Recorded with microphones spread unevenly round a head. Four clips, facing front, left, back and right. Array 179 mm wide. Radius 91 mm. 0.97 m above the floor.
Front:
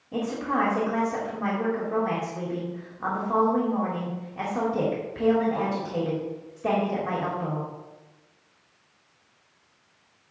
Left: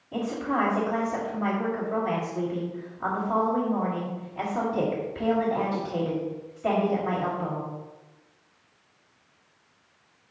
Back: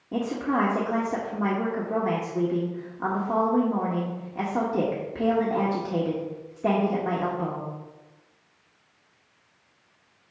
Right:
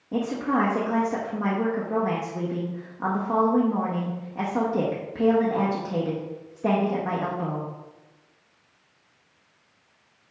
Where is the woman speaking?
135° right, 1.3 m.